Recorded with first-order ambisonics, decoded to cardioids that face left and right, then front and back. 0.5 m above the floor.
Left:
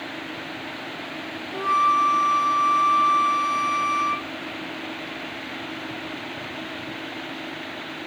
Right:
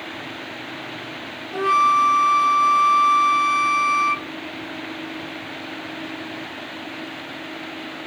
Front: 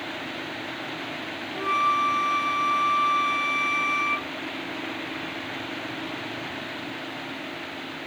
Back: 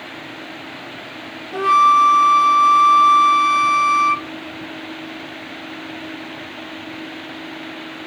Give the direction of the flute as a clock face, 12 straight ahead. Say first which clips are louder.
Right 3 dB, back 11 dB; 5 o'clock.